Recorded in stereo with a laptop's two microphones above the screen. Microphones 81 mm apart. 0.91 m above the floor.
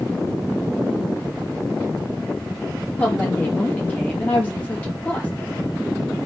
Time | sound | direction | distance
3.0 | a woman speaking | 20° left (ahead or behind) | 1.3 m